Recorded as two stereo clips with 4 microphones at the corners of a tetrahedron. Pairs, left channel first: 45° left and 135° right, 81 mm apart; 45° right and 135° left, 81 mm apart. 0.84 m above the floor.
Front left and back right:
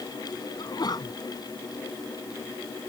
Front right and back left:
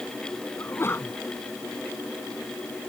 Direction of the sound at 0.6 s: 15° left.